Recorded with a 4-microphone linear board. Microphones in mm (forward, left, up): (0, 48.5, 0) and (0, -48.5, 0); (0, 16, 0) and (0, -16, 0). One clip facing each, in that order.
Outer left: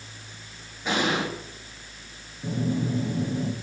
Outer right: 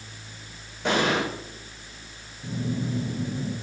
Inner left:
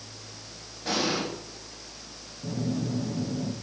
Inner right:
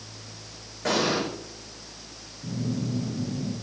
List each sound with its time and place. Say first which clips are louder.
0.8 s an explosion: outer right 2 dB, inner right 3 dB; 80° right, 7.5 m
2.4 s a phone buzzing: outer left 3 dB, even; 35° left (ahead or behind), 3 m